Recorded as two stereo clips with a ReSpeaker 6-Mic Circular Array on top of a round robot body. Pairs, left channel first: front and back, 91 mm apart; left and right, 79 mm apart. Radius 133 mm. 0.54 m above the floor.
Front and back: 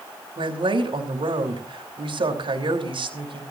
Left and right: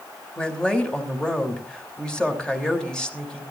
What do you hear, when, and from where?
0.4 s a woman speaking: 170° left, 3 m